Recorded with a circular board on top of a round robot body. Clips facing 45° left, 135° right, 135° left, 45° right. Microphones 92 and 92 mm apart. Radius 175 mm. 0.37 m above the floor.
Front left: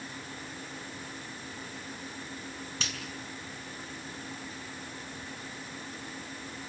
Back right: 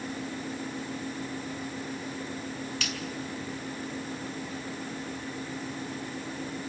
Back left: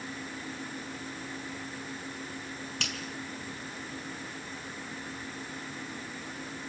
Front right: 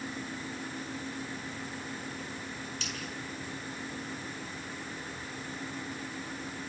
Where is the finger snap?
105° left, 6 m.